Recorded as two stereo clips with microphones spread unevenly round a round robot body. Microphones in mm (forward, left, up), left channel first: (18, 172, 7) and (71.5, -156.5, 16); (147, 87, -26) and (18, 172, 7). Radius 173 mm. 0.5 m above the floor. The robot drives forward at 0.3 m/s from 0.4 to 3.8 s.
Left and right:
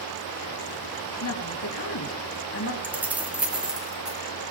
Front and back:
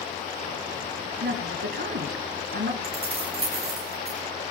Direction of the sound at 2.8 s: 165° right.